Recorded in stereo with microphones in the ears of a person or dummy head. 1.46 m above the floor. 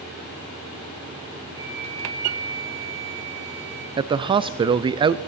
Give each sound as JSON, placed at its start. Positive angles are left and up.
{"t": 1.6, "sound": "a flute", "side_deg": -30, "distance_m": 4.5}
{"t": 4.0, "sound": "a man speaking", "side_deg": -20, "distance_m": 0.5}